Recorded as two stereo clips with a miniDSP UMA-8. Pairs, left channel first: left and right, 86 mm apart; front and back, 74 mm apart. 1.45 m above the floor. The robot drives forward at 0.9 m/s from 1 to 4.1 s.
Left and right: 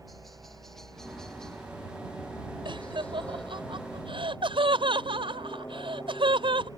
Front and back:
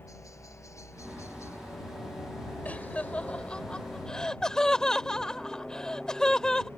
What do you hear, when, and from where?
0.0 s a helicopter: 5° left; by 6.8 s 105° left
2.6 s laughter: 70° right; by 6.7 s 80° right